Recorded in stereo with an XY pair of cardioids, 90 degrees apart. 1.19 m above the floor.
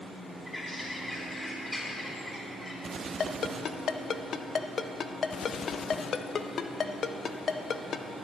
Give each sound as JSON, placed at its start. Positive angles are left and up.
{"t": 0.5, "sound": "a bird", "azimuth_deg": 10, "distance_m": 3.5}
{"t": 3.2, "sound": "a ringtone", "azimuth_deg": 50, "distance_m": 0.7}